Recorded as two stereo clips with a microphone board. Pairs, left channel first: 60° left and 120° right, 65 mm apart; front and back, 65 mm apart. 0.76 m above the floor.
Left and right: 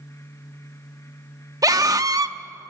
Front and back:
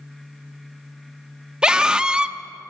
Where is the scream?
105° right, 1.0 m.